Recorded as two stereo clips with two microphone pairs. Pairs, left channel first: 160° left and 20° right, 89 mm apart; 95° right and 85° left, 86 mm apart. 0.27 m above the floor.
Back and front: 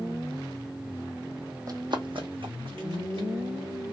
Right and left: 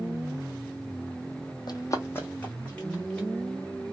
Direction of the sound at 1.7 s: 65° right.